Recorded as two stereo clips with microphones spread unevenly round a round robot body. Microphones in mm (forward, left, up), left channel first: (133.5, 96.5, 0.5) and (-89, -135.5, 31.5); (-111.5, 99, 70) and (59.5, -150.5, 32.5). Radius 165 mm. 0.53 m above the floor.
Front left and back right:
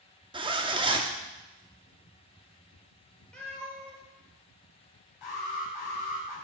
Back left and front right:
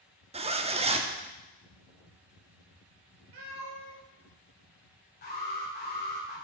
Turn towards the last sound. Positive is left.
turn(degrees=60)